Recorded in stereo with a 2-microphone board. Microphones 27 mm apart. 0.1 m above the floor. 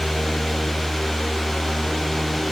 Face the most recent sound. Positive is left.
No sound to turn to.